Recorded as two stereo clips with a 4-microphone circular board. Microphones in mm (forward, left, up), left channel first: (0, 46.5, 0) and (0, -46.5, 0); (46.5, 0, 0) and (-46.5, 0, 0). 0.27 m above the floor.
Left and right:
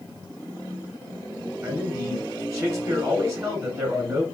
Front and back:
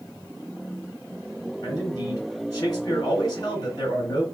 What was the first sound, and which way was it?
A man speaking, 40° right.